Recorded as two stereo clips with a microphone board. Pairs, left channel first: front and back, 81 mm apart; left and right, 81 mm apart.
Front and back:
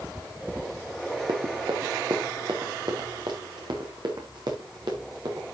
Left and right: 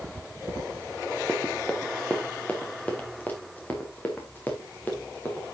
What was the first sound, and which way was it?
Running footsteps, 165° left.